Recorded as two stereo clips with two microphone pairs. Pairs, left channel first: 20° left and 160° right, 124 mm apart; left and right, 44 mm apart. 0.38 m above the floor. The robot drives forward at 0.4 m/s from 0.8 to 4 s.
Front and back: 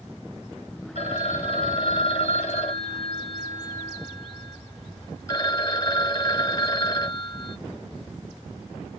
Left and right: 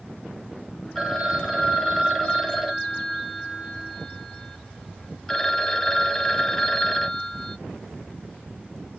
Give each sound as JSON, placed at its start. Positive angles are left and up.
{"t": 0.9, "sound": "a phone ringing", "azimuth_deg": 5, "distance_m": 1.7}